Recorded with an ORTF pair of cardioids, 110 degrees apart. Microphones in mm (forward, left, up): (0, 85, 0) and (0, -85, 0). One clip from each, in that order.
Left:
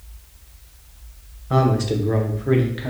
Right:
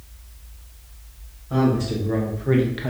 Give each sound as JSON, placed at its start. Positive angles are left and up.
{"t": 1.5, "sound": "a man speaking", "azimuth_deg": 50, "distance_m": 0.7}